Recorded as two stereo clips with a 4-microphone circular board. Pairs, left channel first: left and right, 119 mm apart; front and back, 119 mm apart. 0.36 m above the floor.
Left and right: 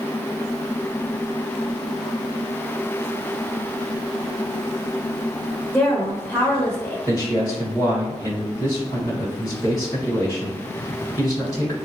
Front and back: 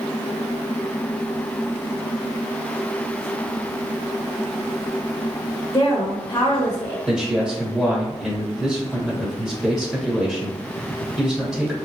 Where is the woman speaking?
20° left, 0.9 m.